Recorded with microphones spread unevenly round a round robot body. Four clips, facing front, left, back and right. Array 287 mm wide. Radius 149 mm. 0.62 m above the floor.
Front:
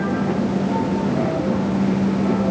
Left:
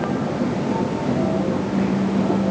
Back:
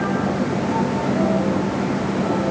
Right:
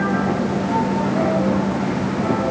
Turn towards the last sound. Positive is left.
No sound to turn to.